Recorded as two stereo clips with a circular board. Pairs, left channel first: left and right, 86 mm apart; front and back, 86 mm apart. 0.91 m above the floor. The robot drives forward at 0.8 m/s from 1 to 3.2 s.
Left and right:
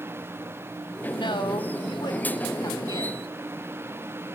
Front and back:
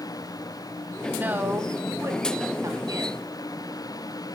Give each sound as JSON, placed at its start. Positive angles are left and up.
{"t": 1.1, "sound": "a woman speaking", "azimuth_deg": 110, "distance_m": 3.0}